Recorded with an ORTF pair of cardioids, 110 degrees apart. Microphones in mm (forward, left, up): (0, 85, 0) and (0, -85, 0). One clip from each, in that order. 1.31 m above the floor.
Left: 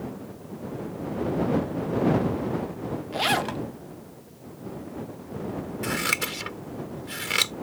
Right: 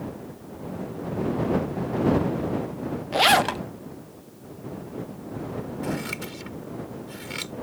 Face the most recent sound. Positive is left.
turn(degrees=60)